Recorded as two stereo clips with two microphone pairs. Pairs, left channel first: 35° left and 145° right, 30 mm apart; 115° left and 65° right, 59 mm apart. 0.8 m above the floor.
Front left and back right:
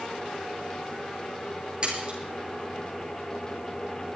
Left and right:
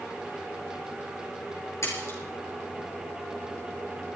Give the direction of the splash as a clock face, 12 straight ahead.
7 o'clock.